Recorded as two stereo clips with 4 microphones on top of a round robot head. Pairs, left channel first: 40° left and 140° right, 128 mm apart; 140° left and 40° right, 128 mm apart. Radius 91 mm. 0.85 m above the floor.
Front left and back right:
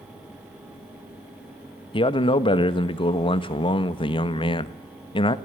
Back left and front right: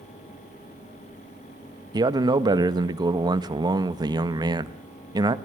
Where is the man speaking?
5° left, 1.5 m.